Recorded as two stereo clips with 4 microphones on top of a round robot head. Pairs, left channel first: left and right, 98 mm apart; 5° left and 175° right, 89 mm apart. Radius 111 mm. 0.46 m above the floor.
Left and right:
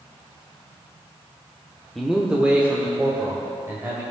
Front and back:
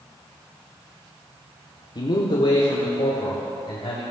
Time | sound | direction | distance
1.9 | a man speaking | 5° left | 1.0 m